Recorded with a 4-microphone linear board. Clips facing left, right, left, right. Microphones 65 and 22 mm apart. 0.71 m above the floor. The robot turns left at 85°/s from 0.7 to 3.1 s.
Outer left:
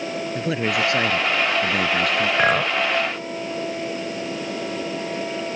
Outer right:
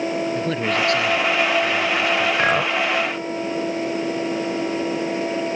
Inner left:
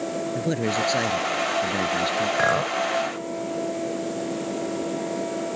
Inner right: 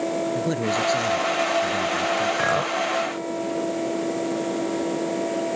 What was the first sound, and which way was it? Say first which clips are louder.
A man speaking: outer right 1 dB, inner right 1 dB; 175° left.